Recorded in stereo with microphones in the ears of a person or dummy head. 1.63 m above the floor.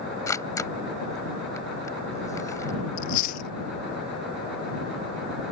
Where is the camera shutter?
10° left (ahead or behind).